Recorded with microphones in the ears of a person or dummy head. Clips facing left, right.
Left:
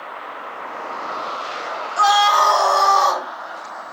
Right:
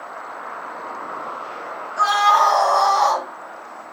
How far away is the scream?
About 1.8 m.